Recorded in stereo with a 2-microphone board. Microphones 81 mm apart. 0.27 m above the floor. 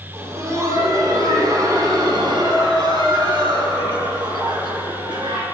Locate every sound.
0.1 s laughter: 35° right (ahead or behind), 2 m; by 5.4 s 70° right (ahead or behind), 4 m